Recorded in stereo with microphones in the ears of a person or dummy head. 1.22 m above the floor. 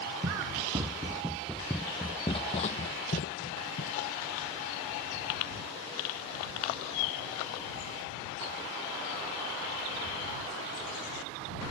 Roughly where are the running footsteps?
Right.